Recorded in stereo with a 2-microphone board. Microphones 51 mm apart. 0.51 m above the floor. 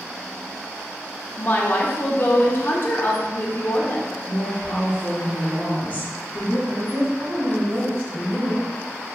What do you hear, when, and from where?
1.4 s a woman speaking: 40° left (ahead or behind), 0.9 m
4.3 s a woman speaking: 30° left (ahead or behind), 1.5 m
6.7 s a woman speaking: 50° right (ahead or behind), 1.8 m